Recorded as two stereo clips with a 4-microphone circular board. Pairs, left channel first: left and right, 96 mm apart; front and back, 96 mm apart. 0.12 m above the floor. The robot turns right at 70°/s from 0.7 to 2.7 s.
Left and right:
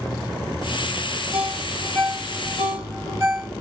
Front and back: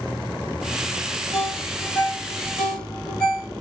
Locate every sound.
1.3 s a ringtone: 25° right, 2 m; by 3.5 s 75° left, 2 m